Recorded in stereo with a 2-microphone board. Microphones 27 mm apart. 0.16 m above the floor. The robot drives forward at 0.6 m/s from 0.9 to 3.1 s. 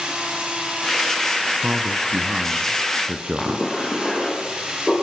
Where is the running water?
45° right (ahead or behind), 8.5 m; by 5.0 s 35° right (ahead or behind), 9.5 m.